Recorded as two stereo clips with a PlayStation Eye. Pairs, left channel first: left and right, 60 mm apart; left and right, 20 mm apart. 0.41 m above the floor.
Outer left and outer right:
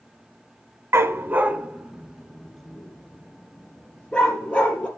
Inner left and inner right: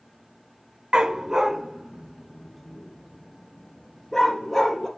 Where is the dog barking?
50° right (ahead or behind), 1.0 m; by 4.9 s 20° left (ahead or behind), 3 m.